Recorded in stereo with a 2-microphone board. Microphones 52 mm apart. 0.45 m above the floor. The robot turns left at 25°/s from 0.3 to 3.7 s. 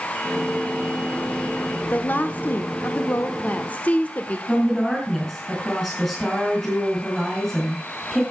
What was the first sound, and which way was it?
A woman speaking, 105° left.